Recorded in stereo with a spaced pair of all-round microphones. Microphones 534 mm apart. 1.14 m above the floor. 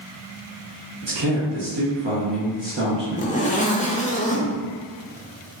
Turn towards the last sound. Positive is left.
turn(degrees=15)  # may be behind; listen again after turning